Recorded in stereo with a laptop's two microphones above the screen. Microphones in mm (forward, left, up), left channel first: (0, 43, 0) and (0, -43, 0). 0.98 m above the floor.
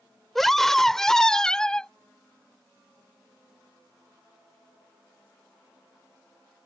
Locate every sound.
0.3 s a scream: 5° left (ahead or behind); by 1.9 s 10° left (ahead or behind)